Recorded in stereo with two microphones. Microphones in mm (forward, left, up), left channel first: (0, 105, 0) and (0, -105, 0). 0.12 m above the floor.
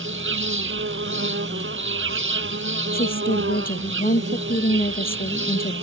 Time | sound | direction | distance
0.0 | an insect | 70° right (ahead or behind) | ?
2.9 | a woman speaking | 45° left (ahead or behind) | ?